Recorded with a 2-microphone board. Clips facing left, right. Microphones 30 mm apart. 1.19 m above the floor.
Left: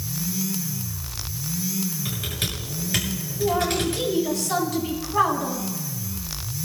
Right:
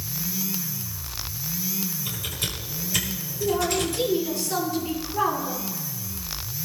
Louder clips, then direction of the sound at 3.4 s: Left 1 dB; 90° left.